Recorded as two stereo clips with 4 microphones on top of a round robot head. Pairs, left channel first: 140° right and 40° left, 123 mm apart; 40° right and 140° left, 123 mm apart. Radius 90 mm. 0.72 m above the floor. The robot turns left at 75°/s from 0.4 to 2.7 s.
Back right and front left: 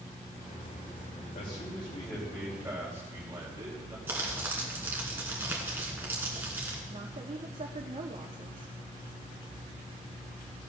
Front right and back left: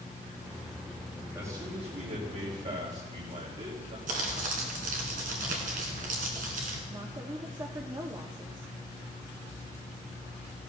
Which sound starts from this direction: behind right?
A man speaking, at 1.4 s.